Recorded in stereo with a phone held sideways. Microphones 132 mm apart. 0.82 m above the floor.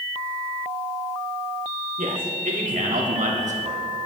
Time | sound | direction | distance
2.0 | a man speaking | 75° right (ahead or behind) | 2.5 m